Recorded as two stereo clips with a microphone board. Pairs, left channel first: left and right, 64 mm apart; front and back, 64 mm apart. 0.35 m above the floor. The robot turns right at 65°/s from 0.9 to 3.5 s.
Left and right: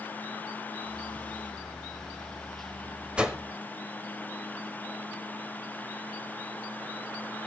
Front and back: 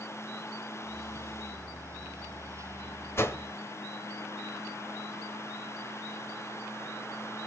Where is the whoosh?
25° right, 1.0 m; by 3.4 s 10° right, 1.0 m.